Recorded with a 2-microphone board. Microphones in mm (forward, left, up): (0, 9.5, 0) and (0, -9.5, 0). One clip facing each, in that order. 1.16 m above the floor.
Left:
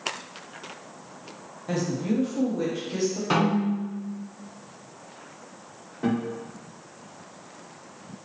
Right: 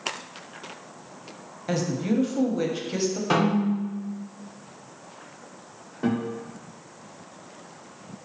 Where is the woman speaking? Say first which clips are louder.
Right 1 dB; 30° right (ahead or behind), 0.6 m.